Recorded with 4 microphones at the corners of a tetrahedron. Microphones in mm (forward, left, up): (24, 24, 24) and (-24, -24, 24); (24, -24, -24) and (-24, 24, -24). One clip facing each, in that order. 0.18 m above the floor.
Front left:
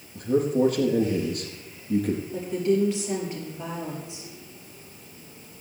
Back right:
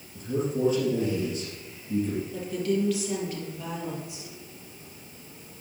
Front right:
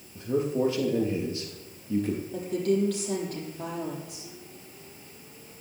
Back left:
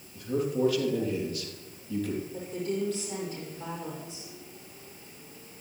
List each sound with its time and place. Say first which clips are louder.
0.1 s a man speaking: front left 6 dB, front right 2 dB; 20° left, 3.5 m
2.3 s a woman speaking: front left 5 dB, front right 6 dB; 20° right, 6 m